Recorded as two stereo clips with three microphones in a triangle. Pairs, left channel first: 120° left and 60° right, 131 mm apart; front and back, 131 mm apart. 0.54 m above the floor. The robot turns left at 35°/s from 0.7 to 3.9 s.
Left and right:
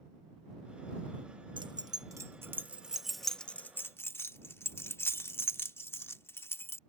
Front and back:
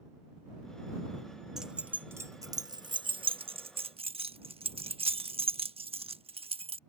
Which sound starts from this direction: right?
Keys jangling, at 1.6 s.